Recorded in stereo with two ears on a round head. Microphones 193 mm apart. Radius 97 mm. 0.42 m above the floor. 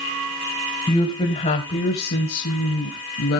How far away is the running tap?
No running tap in this recording.